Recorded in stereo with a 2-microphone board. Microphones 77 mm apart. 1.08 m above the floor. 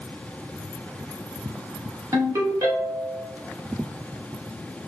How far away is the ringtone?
About 1.0 m.